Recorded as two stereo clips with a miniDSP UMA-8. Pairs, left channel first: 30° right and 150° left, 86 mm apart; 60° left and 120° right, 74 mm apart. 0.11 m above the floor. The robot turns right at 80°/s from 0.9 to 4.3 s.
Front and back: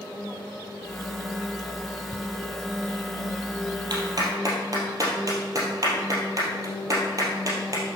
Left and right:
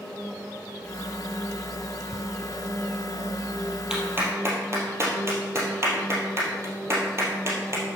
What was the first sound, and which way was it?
Ticking, 105° right.